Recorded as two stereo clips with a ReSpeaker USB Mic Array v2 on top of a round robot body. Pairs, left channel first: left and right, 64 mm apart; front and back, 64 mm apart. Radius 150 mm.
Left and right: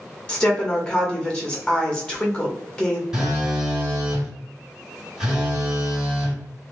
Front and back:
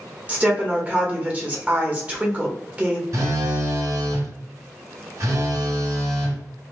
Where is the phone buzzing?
170° right, 2.0 m.